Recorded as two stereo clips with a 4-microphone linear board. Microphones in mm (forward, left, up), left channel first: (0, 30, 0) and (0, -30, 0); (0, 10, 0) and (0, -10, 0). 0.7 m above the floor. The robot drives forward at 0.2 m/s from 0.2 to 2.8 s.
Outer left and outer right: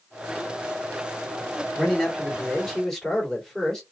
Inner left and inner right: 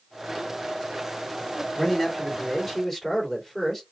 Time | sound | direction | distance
1.8 | a man speaking | 10° left (ahead or behind) | 1.8 m